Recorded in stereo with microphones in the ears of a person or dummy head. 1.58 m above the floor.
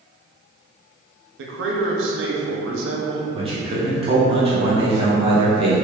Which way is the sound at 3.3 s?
35° right (ahead or behind).